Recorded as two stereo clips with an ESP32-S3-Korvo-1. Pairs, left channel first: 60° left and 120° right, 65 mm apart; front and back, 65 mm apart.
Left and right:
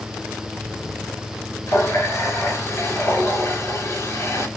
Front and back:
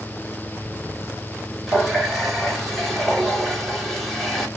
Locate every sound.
1.7 s a running tap: 90° left, 1.9 m